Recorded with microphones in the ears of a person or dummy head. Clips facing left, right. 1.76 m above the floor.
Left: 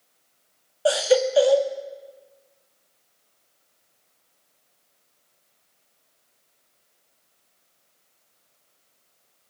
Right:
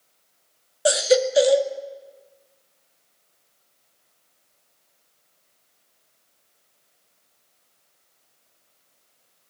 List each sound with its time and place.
0.8 s a baby crying: 15° right (ahead or behind), 1.6 m